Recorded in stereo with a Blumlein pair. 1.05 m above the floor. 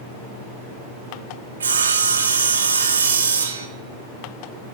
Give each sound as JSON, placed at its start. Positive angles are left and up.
{"t": 1.6, "sound": "sawing", "azimuth_deg": -70, "distance_m": 0.9}